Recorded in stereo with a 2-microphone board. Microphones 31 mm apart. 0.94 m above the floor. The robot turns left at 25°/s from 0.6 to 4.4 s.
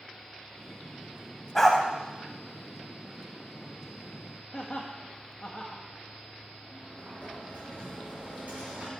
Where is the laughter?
20° left (ahead or behind), 0.9 m.